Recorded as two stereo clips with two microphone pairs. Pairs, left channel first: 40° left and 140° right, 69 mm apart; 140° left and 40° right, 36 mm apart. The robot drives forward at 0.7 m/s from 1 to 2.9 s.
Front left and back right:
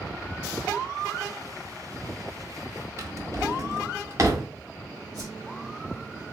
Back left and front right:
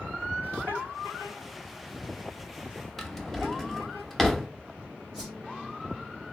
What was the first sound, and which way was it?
A drawer, 135° right.